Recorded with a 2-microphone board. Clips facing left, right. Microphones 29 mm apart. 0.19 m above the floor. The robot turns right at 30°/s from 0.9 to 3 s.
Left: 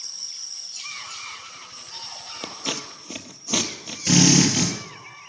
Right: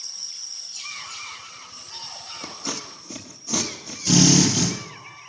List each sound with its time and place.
2.4 s scissors: 55° left (ahead or behind), 0.9 m; by 4.0 s 40° left (ahead or behind), 0.9 m
4.1 s a drill: 45° left (ahead or behind), 3.5 m